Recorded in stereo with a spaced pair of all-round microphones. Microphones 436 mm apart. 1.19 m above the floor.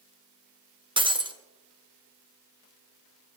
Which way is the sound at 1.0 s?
10° right (ahead or behind).